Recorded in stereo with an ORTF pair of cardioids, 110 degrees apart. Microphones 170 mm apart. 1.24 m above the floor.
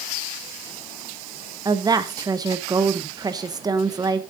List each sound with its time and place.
1.6 s a woman speaking: 20° right, 1.0 m